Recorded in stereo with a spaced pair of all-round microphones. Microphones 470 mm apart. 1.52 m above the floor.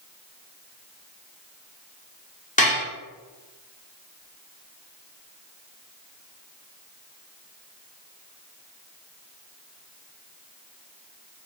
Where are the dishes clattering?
15° left (ahead or behind), 0.8 m.